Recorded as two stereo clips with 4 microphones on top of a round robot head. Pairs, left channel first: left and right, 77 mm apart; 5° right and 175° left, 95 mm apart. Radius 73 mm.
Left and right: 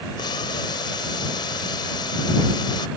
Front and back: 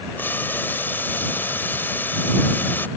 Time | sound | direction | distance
0.2 | boiling | 65° left | ?